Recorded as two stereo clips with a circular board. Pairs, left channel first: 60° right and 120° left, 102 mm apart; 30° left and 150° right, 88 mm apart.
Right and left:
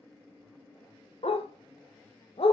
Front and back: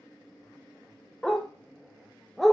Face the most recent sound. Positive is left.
turn(degrees=-60)